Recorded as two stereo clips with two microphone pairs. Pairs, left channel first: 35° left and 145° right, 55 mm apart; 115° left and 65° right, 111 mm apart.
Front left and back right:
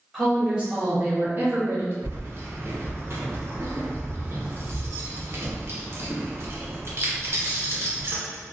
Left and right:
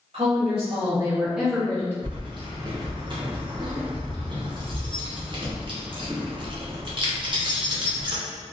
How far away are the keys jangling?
About 0.6 m.